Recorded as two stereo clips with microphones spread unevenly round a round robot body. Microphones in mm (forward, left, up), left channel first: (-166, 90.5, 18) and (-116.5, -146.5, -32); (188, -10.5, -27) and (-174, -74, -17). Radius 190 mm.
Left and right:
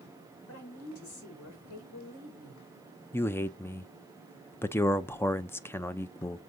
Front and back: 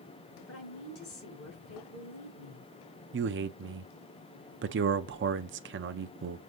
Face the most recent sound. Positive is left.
turn(degrees=-165)